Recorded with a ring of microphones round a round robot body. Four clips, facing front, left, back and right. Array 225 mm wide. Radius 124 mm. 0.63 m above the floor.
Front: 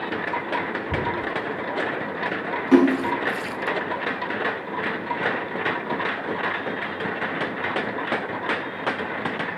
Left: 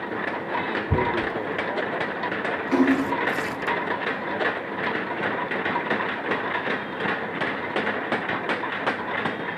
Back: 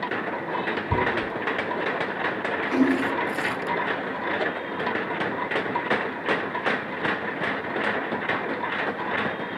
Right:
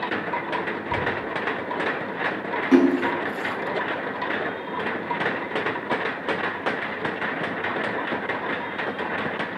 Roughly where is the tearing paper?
Left.